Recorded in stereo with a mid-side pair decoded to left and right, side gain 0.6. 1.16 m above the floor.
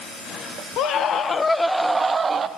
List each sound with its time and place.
0.8 s a scream: 65° left, 0.8 m; by 2.5 s 30° right, 0.9 m